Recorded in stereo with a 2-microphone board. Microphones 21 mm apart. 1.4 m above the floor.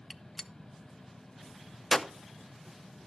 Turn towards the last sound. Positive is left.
turn(degrees=10)  # may be behind; listen again after turning